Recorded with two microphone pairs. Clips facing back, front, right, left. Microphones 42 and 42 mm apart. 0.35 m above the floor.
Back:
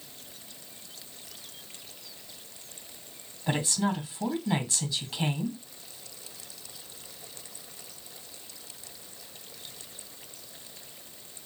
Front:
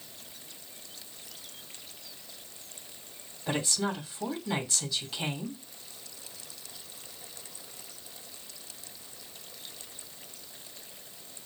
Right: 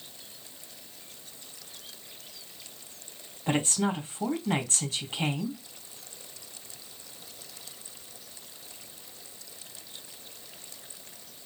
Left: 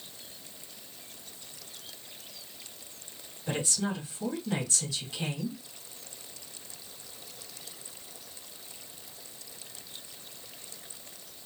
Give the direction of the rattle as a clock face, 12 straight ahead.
No rattle in this recording.